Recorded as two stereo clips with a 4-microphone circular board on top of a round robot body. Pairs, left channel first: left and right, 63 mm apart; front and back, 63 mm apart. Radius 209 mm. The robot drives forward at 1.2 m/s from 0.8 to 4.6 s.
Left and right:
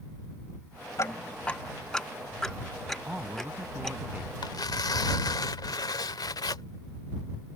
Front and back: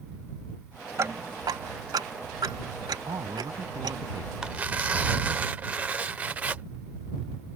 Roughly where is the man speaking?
Behind.